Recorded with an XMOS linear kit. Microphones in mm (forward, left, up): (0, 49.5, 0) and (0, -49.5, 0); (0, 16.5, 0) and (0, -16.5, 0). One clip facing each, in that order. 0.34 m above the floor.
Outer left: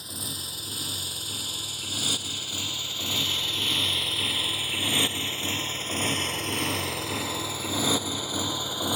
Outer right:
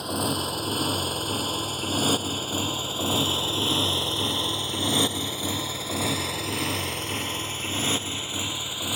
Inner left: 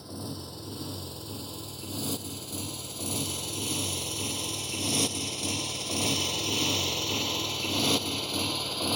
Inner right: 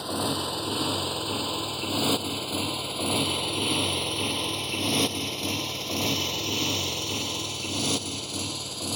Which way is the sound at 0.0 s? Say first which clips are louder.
Outer right 14 dB, inner right 11 dB; 60° right (ahead or behind).